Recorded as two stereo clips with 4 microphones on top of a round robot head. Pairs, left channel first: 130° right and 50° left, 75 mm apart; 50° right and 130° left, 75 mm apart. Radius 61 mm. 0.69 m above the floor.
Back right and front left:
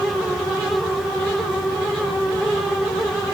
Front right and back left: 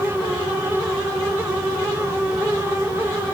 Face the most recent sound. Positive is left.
No sound to turn to.